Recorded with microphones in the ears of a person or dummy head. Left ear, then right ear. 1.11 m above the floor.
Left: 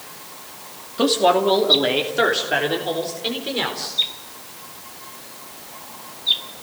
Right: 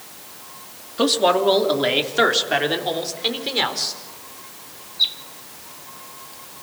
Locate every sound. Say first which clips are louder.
1.0 s a man speaking: left 1 dB; 5° right (ahead or behind), 2.5 m; by 4.0 s 25° right (ahead or behind), 4.5 m